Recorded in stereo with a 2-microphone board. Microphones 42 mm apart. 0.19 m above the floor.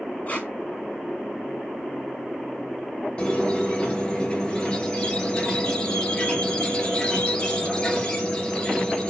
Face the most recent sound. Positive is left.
turn(degrees=20)  # may be behind; listen again after turning